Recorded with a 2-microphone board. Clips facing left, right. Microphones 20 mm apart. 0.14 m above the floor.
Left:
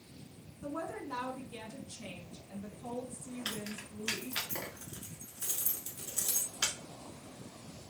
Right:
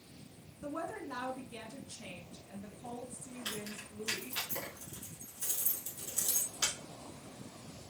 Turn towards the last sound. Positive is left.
turn(degrees=30)  # may be behind; listen again after turning